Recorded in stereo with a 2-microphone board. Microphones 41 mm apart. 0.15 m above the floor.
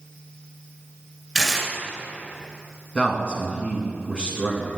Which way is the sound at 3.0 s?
20° left (ahead or behind).